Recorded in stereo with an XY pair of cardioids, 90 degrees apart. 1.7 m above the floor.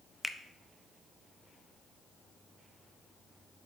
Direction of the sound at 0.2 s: 20° left.